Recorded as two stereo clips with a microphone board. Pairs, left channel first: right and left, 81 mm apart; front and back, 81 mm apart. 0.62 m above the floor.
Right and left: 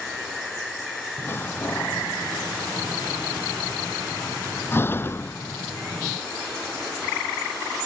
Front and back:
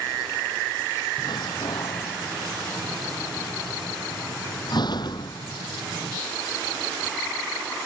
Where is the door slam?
30° right.